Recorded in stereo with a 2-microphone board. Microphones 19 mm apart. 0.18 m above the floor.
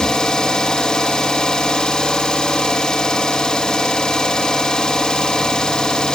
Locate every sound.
0.0 s an engine running: 70° left (ahead or behind), 2 m